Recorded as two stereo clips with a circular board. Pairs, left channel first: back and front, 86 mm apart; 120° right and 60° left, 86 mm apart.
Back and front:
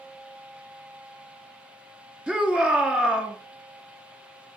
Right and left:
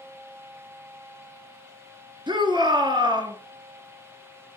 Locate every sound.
2.3 s a shout: 80° left, 2.5 m